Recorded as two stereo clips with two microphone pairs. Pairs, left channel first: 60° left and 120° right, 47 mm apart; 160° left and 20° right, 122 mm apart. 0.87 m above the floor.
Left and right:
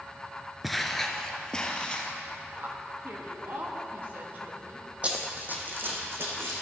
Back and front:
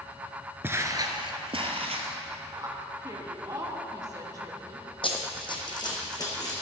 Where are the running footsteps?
175° right, 1.4 m; by 6.5 s 145° right, 2.5 m.